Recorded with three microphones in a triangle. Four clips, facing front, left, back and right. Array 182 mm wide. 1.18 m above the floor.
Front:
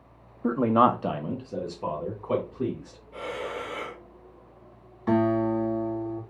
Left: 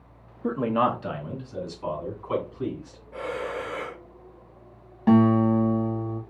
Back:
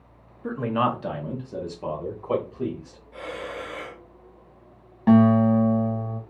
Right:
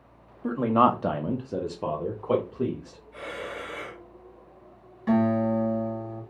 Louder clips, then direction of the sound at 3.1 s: Left 5 dB, front 1 dB; 75° left.